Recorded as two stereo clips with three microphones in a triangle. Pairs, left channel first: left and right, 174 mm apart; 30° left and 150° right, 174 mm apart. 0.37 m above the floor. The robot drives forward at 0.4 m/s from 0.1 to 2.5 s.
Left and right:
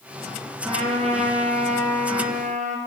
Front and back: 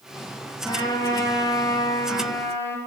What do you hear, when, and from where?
0.7 s a trumpet: 35° right, 3 m; by 2.8 s 45° right, 2.5 m